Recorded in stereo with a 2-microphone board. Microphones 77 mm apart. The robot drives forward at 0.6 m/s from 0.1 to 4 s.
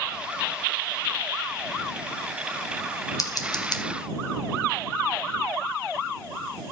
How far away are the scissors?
About 1.2 m.